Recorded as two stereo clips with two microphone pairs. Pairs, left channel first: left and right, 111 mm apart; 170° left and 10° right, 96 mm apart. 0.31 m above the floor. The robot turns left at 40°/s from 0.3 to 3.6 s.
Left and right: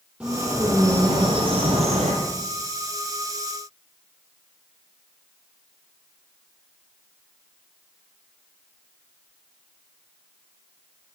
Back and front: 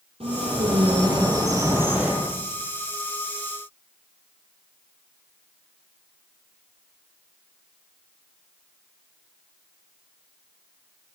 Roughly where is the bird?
Ahead.